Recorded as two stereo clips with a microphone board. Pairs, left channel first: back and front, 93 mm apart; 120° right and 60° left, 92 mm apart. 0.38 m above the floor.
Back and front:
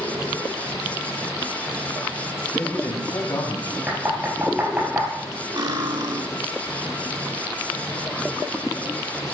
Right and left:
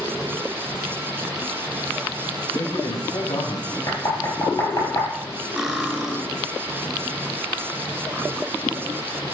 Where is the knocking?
75° right, 4.5 m.